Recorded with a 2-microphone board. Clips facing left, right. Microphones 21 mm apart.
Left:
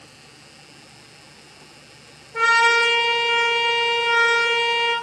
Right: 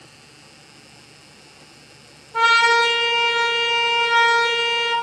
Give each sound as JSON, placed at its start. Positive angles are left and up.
{"t": 2.3, "sound": "a trumpet", "side_deg": -55, "distance_m": 1.2}